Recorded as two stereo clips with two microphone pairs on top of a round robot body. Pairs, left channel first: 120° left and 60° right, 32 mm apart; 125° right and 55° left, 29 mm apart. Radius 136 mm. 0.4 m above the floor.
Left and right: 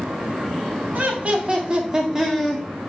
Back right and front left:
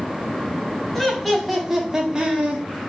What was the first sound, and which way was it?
Laughter, 45° right.